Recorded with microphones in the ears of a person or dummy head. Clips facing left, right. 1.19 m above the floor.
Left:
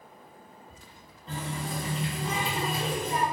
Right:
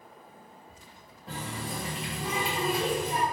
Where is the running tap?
5° right (ahead or behind), 1.1 m.